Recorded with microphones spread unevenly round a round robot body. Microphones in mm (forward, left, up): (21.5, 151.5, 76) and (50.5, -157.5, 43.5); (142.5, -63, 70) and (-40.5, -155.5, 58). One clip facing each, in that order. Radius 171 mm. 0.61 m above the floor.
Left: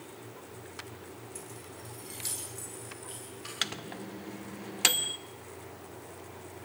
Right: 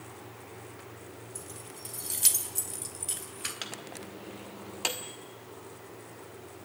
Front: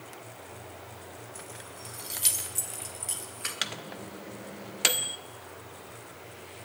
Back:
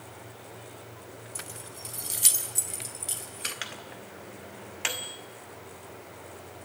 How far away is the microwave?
About 1.1 m.